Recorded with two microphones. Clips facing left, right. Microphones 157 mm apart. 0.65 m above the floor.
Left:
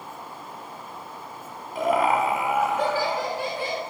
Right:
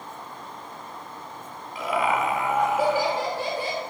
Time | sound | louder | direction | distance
1.8 | laughter | left 3 dB | 50° left (ahead or behind) | 1.3 m